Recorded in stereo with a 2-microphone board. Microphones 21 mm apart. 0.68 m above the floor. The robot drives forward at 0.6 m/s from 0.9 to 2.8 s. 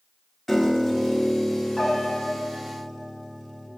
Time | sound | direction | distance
0.5 | a piano | 10° left (ahead or behind) | 1.0 m